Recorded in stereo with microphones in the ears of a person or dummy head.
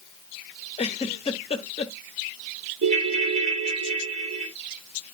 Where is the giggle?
25° left (ahead or behind), 0.8 m.